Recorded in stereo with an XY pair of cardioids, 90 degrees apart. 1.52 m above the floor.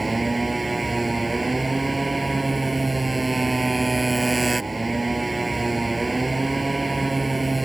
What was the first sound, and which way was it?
A motorcycle, 20° right.